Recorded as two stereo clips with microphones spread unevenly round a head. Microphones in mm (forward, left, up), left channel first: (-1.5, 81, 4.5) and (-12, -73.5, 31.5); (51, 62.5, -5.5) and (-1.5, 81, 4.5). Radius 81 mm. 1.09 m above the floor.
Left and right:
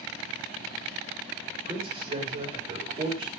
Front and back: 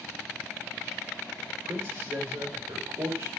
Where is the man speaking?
155° right, 5 m.